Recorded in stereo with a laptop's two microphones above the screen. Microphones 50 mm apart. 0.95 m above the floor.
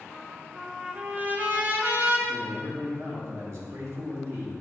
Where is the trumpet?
35° right (ahead or behind), 0.9 m.